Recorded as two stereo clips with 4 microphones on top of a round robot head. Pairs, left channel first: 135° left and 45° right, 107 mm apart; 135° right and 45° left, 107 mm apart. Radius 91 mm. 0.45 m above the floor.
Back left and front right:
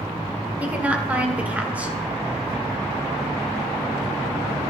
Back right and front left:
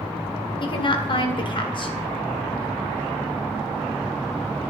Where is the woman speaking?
115° right, 2 m.